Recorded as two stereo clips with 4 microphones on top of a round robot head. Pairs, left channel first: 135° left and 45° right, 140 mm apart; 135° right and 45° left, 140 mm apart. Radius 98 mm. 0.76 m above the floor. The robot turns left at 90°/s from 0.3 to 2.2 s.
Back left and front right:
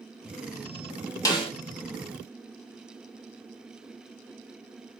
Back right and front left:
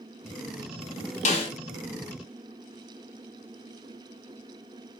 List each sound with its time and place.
1.2 s a snare drum: 160° right, 1.0 m; by 1.5 s 175° left, 1.0 m